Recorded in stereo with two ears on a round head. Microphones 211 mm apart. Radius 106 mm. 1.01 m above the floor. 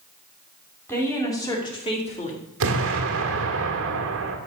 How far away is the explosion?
About 1.5 m.